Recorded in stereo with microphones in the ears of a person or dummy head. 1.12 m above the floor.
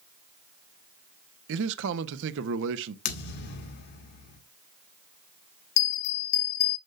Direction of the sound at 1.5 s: 70° right (ahead or behind).